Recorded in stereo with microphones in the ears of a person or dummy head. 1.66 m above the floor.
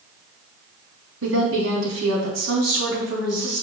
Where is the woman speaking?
85° right, 3 m; by 3.6 s 70° right (ahead or behind), 3 m.